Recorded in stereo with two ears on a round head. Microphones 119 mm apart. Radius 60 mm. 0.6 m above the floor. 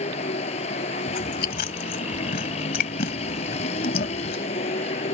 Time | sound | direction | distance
0.0 | a vehicle | 55° left (ahead or behind) | ?
1.1 | chewing | 80° left | ?